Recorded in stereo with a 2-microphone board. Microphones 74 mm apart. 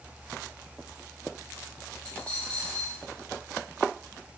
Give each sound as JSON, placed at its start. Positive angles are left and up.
{"t": 2.0, "sound": "a dropped coin", "side_deg": 20, "distance_m": 2.0}